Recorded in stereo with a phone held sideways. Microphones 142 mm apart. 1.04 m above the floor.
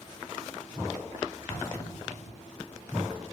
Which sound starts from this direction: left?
An explosion, at 1.5 s.